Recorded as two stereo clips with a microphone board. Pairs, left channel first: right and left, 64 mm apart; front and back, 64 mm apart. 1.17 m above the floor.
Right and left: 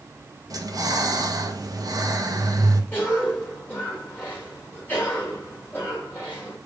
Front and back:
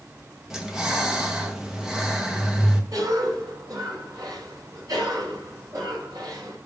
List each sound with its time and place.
0.5 s breathing: 95° left, 1.3 m
2.9 s a cough: 150° right, 3 m